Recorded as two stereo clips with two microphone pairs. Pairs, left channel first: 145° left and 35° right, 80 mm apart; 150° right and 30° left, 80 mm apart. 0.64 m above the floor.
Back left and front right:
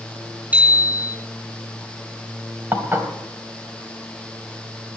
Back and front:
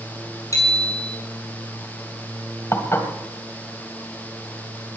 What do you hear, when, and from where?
0.5 s a bicycle bell: 105° right, 5 m
2.7 s dishes clattering: 100° right, 2 m